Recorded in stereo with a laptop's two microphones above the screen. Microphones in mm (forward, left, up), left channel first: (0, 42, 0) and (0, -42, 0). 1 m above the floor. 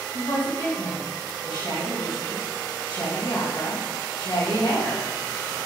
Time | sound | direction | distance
0.1 | a woman speaking | 65° left (ahead or behind) | 1.1 m